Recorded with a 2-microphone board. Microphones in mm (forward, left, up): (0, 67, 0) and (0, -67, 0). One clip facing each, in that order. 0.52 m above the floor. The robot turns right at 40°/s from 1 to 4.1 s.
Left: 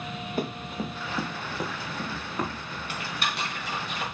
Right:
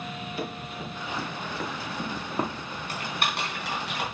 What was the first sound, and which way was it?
Running footsteps, 50° left (ahead or behind).